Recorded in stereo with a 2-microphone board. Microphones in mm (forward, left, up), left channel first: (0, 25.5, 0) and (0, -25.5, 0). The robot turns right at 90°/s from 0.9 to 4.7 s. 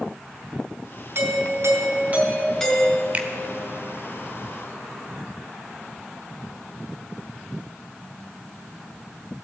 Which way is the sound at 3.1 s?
30° right (ahead or behind).